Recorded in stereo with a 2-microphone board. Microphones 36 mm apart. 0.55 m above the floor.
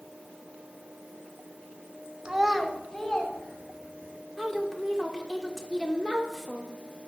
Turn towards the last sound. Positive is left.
turn(degrees=10)  # may be behind; listen again after turning